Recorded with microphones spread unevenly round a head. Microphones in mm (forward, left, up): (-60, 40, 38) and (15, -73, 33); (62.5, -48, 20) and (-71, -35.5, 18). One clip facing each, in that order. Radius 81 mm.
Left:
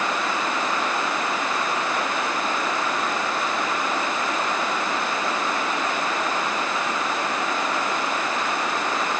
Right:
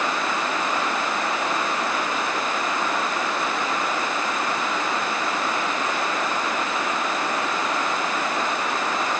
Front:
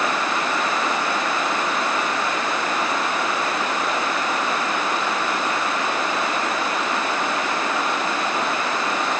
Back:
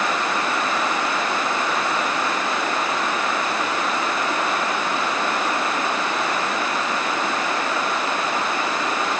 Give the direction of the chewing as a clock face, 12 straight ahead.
No chewing in this recording.